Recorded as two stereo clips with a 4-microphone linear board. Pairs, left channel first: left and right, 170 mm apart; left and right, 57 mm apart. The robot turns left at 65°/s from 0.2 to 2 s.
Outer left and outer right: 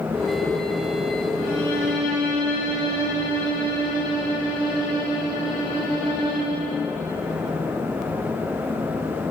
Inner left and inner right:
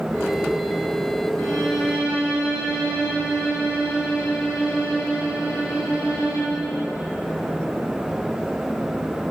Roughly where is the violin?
Ahead.